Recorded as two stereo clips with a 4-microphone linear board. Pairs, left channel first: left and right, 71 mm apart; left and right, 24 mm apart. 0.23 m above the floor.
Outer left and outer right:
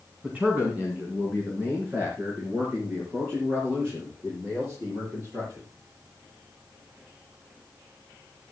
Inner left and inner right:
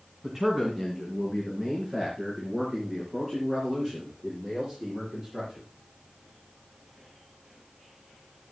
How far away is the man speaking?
About 2.5 m.